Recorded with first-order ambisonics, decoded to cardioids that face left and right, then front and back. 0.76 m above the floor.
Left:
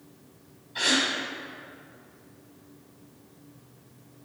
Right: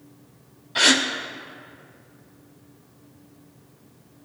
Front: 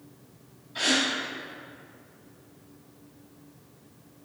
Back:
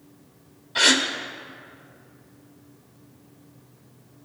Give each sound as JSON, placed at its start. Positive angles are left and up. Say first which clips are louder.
{"t": 0.8, "sound": "a gasp", "louder": "right 6 dB, back 6 dB", "azimuth_deg": -125, "distance_m": 0.7}